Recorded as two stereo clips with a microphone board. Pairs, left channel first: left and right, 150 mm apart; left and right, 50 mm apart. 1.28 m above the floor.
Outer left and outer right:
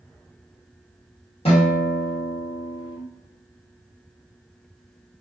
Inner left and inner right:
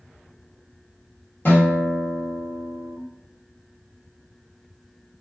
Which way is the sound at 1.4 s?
40° left (ahead or behind).